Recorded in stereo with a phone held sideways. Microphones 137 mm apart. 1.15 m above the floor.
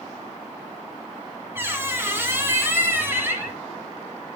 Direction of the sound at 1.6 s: 20° right (ahead or behind).